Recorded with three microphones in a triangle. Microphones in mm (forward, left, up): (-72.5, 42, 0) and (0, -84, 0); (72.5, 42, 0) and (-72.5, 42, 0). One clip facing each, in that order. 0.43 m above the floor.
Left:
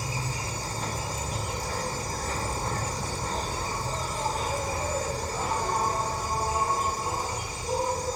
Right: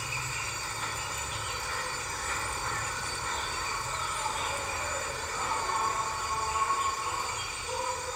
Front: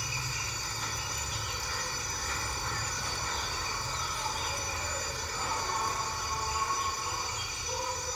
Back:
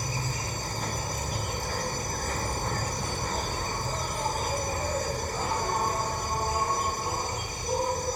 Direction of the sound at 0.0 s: 160° left.